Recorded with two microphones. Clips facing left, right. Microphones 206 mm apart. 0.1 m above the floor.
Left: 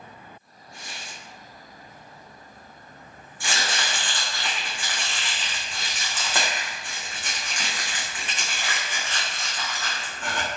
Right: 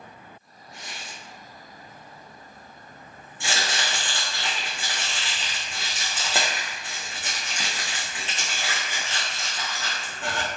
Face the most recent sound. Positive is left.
turn(degrees=-20)  # may be behind; listen again after turning